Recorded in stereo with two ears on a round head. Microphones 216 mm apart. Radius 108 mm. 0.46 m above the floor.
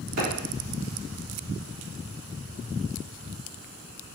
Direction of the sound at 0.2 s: 65° right (ahead or behind).